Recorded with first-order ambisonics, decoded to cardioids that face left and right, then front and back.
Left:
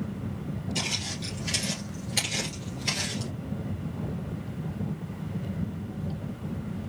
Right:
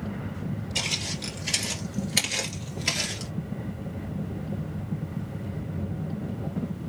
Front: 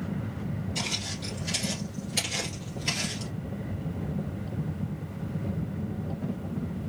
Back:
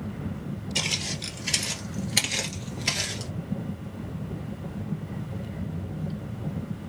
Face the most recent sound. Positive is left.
turn(degrees=-140)